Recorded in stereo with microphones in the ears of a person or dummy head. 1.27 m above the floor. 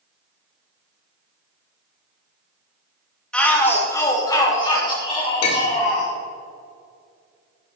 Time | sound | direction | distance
3.3 | a shout | 10° left (ahead or behind) | 2.5 m
5.4 | a clink | 55° left (ahead or behind) | 2 m